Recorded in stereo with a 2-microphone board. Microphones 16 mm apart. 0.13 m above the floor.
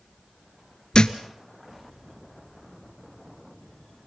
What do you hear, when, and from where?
0.9 s a thud: 50° left (ahead or behind), 1.1 m